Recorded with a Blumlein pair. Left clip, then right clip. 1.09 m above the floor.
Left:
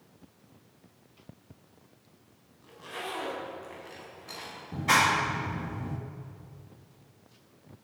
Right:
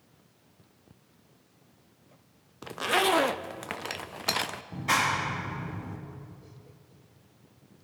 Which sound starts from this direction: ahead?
A clap, at 4.7 s.